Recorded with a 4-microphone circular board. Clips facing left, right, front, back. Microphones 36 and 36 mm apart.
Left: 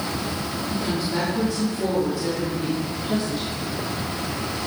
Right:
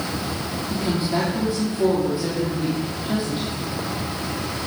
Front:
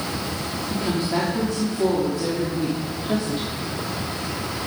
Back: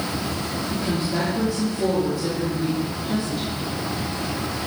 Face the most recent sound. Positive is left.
turn(degrees=-25)